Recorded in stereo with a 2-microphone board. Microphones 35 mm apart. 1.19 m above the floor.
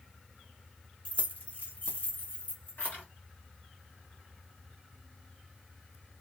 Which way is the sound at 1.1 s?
35° left (ahead or behind).